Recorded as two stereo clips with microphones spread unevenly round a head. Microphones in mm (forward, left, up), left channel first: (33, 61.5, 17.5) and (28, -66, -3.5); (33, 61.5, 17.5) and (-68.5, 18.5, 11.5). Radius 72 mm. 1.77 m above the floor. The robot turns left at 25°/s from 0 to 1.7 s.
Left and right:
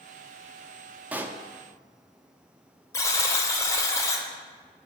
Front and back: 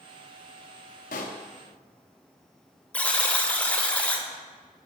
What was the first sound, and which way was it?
A pop, 10° right.